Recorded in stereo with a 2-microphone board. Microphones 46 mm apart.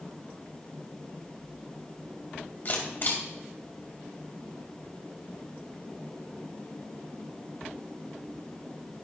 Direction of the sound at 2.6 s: 50° left (ahead or behind).